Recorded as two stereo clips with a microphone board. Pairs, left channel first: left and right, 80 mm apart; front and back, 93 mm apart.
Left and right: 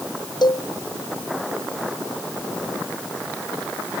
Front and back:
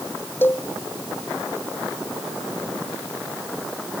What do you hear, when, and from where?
0.4 s a cowbell: 70° left